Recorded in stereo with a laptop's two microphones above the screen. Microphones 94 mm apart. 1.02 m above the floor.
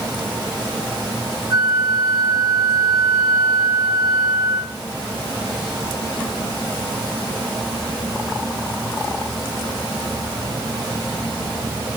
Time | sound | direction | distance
1.5 | a flute | 40° right (ahead or behind) | 7.5 m